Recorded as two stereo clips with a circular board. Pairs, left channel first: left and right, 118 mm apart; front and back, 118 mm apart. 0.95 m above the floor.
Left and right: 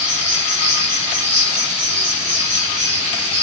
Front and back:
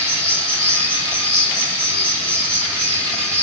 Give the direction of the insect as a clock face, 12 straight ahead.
3 o'clock.